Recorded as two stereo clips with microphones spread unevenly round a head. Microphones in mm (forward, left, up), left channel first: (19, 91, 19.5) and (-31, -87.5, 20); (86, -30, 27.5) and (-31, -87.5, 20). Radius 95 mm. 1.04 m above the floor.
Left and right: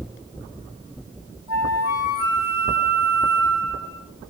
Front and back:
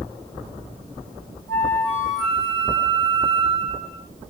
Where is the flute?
115° left, 1.6 m.